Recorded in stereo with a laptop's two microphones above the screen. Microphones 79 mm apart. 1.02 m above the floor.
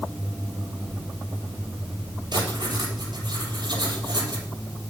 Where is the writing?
75° right (ahead or behind), 7 m.